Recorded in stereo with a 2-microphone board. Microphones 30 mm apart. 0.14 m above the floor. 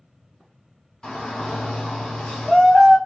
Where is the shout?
20° left (ahead or behind), 1.2 m.